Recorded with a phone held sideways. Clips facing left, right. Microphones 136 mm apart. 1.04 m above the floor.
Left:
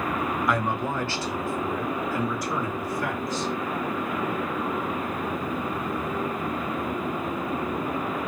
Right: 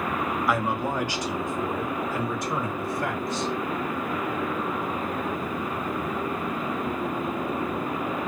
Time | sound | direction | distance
0.5 | a man speaking | 5° right (ahead or behind) | 0.6 m